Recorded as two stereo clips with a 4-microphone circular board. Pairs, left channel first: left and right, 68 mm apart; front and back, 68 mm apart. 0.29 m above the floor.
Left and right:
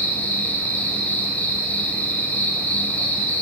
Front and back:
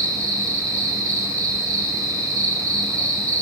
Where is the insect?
155° left, 0.8 m.